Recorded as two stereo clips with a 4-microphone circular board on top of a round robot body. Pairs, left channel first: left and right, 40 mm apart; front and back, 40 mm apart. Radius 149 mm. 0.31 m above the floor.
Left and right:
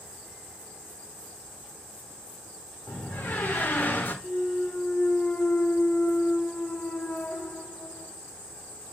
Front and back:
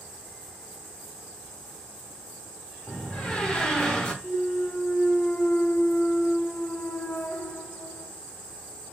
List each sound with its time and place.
2.9 s a door slam: 65° left, 0.9 m
4.2 s a clunk: 50° left, 0.7 m